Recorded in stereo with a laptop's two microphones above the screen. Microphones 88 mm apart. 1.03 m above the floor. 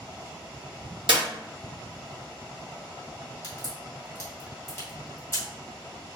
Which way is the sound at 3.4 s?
30° left (ahead or behind).